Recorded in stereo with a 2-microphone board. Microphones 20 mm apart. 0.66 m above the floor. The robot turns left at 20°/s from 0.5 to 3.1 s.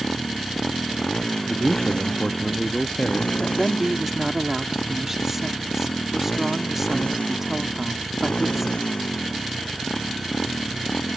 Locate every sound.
0.0 s a motorcycle: 150° left; by 11.2 s 100° left
1.5 s a man speaking: 20° left (ahead or behind)
3.4 s a woman speaking: 15° right (ahead or behind)